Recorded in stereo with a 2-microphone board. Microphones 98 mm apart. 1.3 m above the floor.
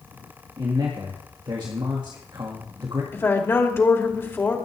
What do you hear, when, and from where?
0.6 s a man speaking: 50° right (ahead or behind), 1.9 m
3.1 s a woman speaking: 25° left (ahead or behind), 2.5 m